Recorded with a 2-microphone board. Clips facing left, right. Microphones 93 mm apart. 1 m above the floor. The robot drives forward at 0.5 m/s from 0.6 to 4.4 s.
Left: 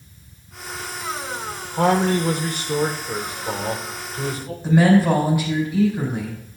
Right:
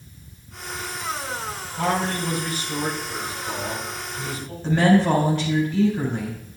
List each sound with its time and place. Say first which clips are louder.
1.8 s a man speaking: left 6 dB; 85° left, 3 m; by 4.5 s 65° left (ahead or behind), 3.5 m
4.6 s a woman speaking: left 2 dB; 10° left (ahead or behind), 4 m